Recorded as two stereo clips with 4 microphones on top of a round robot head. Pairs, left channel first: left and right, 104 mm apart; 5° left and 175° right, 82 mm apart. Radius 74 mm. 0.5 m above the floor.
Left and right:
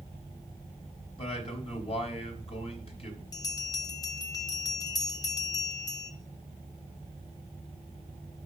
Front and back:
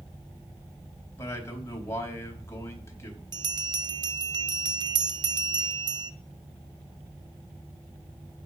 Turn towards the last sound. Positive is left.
turn(degrees=155)